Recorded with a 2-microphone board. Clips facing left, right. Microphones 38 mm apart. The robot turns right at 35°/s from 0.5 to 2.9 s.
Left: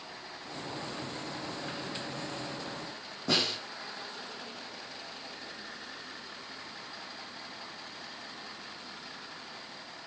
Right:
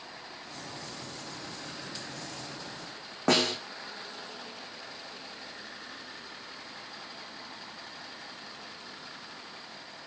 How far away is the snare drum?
About 6 m.